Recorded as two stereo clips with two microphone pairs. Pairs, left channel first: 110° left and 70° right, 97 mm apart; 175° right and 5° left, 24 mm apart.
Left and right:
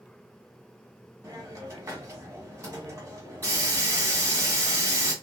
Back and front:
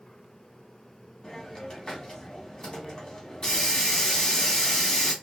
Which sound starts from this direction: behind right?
A hiss, at 1.2 s.